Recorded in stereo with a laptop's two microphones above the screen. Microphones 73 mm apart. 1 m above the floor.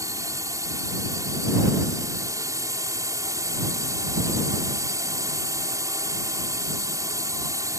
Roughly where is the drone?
Right.